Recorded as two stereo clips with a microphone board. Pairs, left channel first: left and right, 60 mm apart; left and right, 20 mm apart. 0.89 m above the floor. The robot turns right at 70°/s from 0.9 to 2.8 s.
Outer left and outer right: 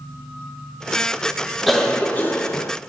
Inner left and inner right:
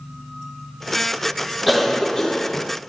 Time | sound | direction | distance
1.7 | a cough | straight ahead | 0.5 m